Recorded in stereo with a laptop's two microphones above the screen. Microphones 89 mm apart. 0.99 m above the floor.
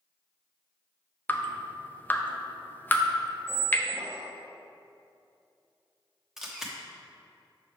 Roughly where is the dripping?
Left.